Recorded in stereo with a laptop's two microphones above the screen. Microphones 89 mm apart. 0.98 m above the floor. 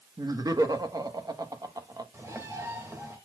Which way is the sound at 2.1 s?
35° right (ahead or behind).